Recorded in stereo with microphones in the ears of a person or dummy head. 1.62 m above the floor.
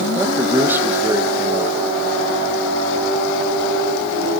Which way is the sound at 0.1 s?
10° right (ahead or behind).